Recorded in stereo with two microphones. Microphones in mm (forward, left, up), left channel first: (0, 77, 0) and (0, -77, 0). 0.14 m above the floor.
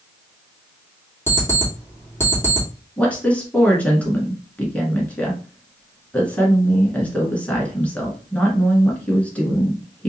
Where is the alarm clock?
15° left (ahead or behind), 2 m.